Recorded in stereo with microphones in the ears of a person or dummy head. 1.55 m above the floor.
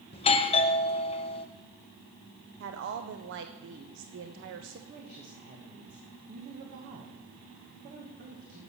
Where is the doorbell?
30° left (ahead or behind), 0.5 m.